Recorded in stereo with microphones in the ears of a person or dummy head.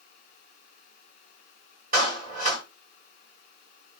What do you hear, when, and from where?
1.9 s a clap: 50° right (ahead or behind), 5.5 m